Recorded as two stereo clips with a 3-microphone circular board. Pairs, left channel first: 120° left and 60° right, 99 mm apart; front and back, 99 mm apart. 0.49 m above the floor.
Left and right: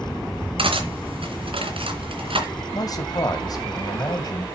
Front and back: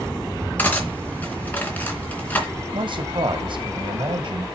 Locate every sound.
0.6 s cutlery clinking: 70° right, 3 m
2.7 s a man speaking: 160° left, 2.5 m